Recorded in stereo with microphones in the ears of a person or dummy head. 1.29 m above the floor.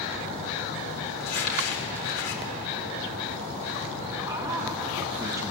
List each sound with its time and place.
1.2 s crumpling: 75° left (ahead or behind), 3.5 m
4.2 s a man speaking: 15° right (ahead or behind), 2.5 m